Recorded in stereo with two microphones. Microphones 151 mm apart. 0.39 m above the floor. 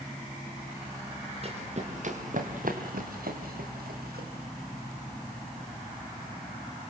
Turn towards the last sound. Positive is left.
turn(degrees=-85)